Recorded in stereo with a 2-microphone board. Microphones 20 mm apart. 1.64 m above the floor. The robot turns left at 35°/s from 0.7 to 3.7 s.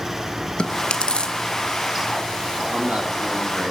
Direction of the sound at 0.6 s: 55° left (ahead or behind).